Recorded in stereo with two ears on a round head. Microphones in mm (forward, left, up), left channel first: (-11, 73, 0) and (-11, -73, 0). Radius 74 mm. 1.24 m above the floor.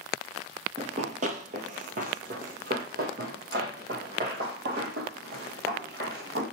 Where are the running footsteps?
40° right (ahead or behind), 1.6 m; by 6.4 s 70° right (ahead or behind), 4.5 m.